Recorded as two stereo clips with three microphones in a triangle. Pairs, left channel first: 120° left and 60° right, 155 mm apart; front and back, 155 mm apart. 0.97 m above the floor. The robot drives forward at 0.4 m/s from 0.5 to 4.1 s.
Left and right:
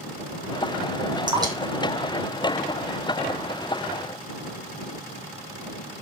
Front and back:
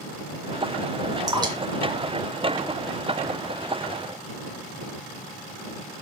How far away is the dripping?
About 1.4 m.